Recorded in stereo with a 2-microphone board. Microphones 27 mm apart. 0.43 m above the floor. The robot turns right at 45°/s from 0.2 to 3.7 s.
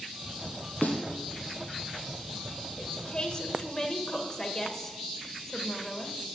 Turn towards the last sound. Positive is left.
turn(degrees=160)